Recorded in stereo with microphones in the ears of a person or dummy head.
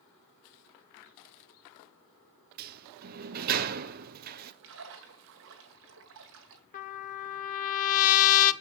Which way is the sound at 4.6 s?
55° right (ahead or behind).